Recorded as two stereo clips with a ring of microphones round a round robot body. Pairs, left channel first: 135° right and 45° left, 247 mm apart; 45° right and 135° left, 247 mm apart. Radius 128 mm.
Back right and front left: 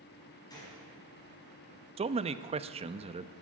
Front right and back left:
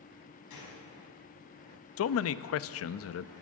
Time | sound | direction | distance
0.5 | a gunshot | 60° right | 5.5 m
2.0 | a man speaking | 20° right | 0.6 m